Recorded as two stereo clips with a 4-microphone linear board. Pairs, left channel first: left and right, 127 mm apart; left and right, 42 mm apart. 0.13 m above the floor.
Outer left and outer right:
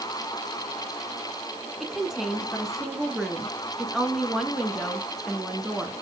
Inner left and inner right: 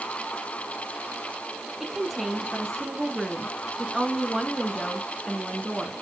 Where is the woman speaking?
Centre (ahead or behind), 1.1 m.